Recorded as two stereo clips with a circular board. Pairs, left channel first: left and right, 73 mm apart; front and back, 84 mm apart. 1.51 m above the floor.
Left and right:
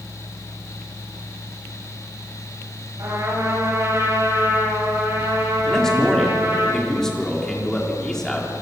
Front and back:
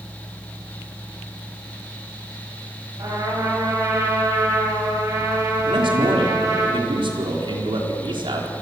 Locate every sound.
3.0 s a trumpet: 135° right, 10 m
5.7 s a man speaking: 175° left, 4 m